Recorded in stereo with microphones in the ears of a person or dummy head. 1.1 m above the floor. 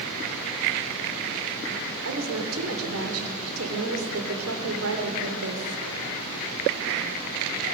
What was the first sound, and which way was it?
A woman speaking, 70° right (ahead or behind).